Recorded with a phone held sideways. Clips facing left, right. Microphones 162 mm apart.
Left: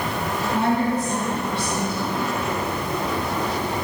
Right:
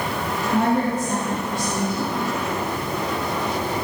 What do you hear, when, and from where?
0.5 s a woman speaking: 80° right, 3.5 m